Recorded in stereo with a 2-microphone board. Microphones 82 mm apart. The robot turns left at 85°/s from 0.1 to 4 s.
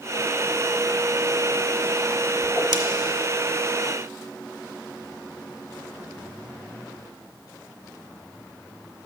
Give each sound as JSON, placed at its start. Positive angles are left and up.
{"t": 2.4, "sound": "a whoosh", "side_deg": 20, "distance_m": 0.7}